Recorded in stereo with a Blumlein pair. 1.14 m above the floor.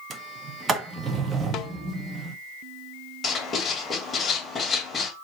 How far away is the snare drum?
About 0.6 m.